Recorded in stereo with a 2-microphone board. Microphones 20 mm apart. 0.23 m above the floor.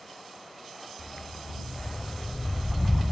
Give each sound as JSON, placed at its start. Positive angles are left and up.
{"t": 1.0, "sound": "a dog barking", "side_deg": 60}